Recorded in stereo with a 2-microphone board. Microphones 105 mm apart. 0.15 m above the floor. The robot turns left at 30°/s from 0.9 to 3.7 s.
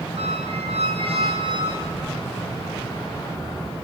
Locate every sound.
0.2 s a squeak: 70° right (ahead or behind), 4 m; by 1.7 s 45° right (ahead or behind), 4 m
1.8 s keys jangling: 60° left (ahead or behind), 3 m; by 2.1 s 55° left (ahead or behind), 3 m